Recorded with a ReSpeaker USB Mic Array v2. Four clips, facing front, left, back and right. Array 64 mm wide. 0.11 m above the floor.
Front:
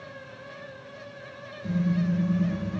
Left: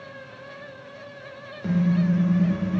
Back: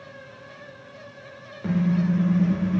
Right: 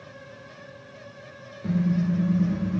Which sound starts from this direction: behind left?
A car horn, at 1.6 s.